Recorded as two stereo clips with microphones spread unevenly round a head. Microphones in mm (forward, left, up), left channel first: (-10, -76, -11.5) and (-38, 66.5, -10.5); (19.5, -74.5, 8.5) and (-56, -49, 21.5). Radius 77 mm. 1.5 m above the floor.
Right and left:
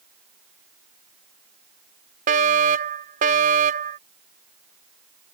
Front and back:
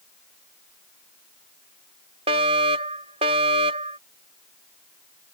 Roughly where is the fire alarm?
Behind left.